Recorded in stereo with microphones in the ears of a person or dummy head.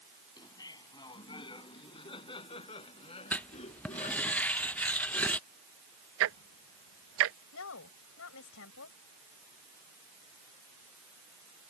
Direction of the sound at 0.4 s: 20° left (ahead or behind).